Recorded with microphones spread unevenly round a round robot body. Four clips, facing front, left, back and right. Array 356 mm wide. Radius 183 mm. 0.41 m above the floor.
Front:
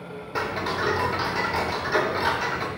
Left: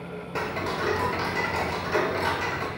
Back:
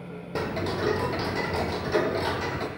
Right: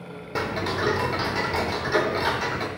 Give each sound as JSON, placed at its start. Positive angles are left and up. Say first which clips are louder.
{"t": 0.3, "sound": "ticking", "louder": "right 2 dB, front 2 dB", "azimuth_deg": -140, "distance_m": 0.6}